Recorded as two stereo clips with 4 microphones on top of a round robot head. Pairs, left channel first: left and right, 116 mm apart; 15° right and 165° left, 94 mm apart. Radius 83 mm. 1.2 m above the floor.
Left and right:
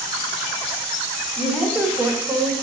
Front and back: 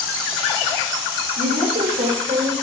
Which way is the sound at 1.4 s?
175° left.